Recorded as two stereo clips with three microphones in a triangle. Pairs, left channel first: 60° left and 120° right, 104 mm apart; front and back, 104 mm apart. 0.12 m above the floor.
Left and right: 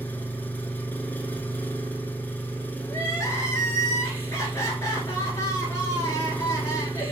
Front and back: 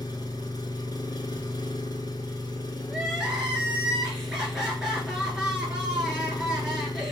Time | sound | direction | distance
0.0 | an engine running | straight ahead | 0.8 m
2.9 | crying | 100° left | 1.8 m